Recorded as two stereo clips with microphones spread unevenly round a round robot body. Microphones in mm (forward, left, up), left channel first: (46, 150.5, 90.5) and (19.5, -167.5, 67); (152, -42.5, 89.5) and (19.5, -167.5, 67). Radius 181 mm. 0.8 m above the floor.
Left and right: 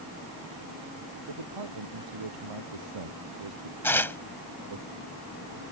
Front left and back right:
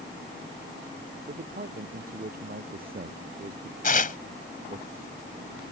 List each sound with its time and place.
1.3 s a man speaking: 100° right
3.8 s tearing paper: straight ahead